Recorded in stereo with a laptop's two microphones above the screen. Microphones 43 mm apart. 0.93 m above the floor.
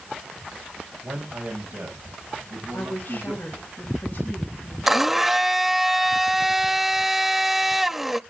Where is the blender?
5° right (ahead or behind), 0.7 m.